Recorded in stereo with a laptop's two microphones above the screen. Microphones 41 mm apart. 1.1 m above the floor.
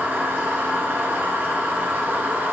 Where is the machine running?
60° right (ahead or behind), 0.8 m.